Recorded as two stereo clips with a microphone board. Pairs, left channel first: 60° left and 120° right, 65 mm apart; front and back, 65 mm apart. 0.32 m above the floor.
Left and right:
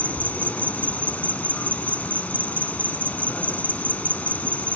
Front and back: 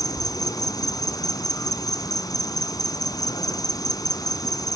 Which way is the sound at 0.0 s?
10° right.